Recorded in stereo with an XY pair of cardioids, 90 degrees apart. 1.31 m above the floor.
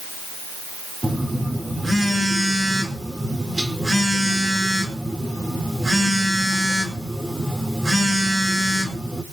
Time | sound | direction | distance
1.0 | a phone buzzing | 25° right | 4.5 m